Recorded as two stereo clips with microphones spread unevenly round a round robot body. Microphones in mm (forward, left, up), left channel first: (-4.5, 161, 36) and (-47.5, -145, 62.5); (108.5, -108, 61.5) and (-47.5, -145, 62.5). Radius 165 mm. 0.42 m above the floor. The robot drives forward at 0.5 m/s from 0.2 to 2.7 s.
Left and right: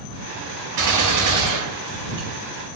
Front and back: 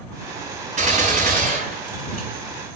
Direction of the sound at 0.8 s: 125° right.